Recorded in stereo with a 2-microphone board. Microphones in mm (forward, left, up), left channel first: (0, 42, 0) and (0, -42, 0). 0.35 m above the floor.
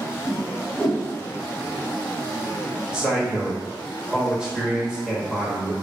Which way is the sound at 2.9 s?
10° right (ahead or behind).